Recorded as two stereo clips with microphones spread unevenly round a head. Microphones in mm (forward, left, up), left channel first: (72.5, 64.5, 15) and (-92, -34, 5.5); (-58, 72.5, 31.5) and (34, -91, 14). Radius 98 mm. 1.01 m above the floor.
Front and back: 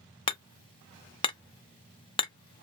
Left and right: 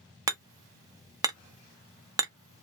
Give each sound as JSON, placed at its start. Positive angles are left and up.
{"t": 0.3, "sound": "hammering", "azimuth_deg": -15, "distance_m": 0.5}